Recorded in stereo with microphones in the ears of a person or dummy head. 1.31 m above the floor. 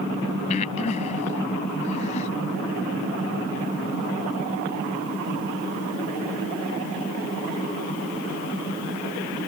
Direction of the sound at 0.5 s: 40° left (ahead or behind).